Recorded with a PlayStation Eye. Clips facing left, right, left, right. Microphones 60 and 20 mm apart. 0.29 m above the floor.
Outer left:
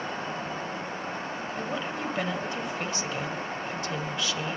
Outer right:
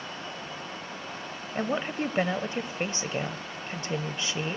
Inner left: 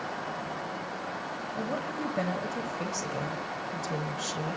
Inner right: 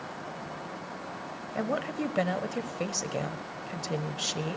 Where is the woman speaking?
30° right (ahead or behind), 1.0 m.